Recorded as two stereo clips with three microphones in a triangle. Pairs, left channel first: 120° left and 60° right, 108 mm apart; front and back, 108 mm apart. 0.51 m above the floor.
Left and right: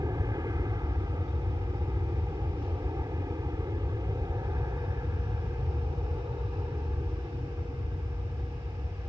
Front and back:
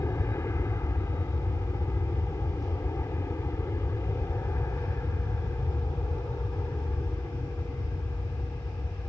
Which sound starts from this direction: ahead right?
An aircraft, at 0.0 s.